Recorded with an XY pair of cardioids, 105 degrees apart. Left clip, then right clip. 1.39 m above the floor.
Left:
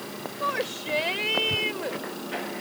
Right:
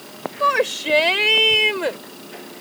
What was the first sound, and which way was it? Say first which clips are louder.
A shout: right 10 dB; 60° right.